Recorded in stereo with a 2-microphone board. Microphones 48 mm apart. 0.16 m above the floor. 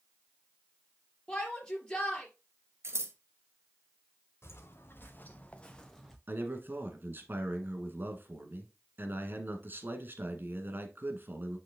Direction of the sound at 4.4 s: 60° left (ahead or behind).